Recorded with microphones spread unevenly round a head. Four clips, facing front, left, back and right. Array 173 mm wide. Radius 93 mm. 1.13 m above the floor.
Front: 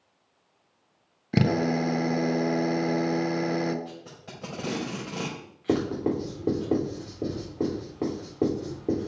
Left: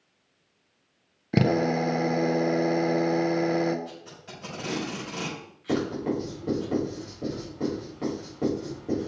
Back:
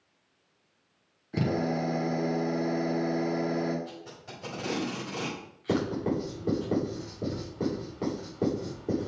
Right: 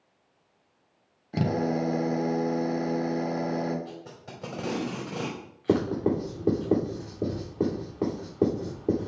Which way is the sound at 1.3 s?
60° left.